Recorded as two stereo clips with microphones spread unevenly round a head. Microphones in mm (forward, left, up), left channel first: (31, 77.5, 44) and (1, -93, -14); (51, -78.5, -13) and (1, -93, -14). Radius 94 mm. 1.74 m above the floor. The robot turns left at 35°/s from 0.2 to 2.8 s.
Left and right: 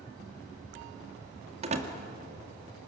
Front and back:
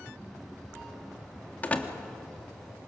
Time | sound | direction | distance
1.6 | a door slam | 35° right | 2 m